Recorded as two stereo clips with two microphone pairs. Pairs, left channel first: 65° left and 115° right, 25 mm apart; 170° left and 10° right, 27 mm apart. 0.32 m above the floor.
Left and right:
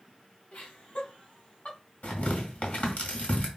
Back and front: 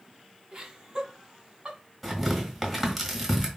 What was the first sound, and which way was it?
Laughter, 50° left.